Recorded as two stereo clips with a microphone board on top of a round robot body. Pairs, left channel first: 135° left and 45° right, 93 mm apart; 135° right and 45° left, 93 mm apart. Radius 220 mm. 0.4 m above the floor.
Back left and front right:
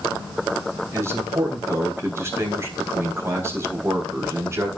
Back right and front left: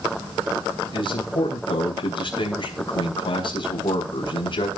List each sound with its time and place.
0.9 s a man speaking: 105° right, 4 m